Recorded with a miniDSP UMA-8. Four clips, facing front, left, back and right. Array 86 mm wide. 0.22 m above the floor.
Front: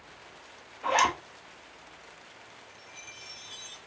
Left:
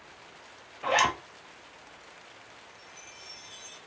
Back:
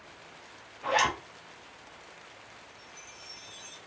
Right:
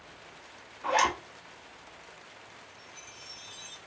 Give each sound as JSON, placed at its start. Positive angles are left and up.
{"t": 0.8, "sound": "a zipper", "azimuth_deg": 85, "distance_m": 1.0}
{"t": 2.7, "sound": "a chime", "azimuth_deg": -10, "distance_m": 0.8}